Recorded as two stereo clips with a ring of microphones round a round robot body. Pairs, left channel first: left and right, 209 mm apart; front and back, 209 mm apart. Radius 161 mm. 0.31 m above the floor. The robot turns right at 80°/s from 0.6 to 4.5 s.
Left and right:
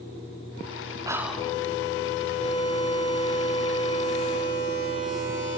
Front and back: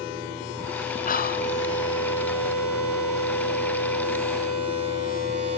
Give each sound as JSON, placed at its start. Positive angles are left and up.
{"t": 1.1, "sound": "whispering", "azimuth_deg": -20, "distance_m": 1.6}